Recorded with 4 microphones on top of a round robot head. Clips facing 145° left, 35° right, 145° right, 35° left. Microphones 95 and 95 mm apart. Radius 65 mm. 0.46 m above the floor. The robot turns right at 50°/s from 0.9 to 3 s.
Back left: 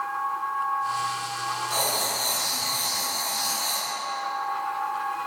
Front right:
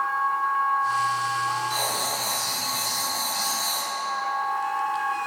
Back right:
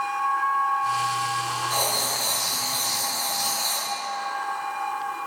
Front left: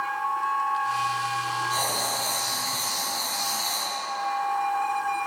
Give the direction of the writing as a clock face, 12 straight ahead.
6 o'clock.